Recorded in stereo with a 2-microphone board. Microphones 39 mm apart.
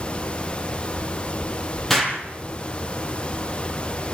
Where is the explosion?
5° left (ahead or behind), 4.5 m.